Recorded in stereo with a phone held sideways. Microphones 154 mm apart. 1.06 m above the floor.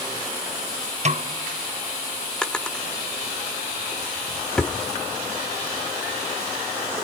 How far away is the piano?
I don't hear a piano.